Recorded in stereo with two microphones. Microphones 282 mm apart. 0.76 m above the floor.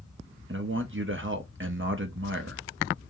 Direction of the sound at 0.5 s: 45° right (ahead or behind).